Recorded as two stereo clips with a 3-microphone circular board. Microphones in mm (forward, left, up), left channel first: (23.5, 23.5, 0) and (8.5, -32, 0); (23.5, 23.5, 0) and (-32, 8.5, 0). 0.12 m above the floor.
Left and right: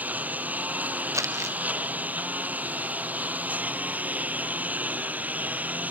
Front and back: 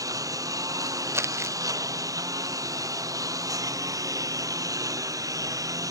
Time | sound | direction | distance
0.0 | a lawn mower | 165° right | ?
1.1 | crumpling | 125° right | ?